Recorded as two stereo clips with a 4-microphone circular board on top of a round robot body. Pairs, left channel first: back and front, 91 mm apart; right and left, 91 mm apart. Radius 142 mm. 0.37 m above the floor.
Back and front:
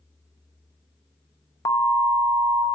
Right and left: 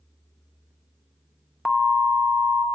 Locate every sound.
1.6 s an alarm: straight behind, 0.8 m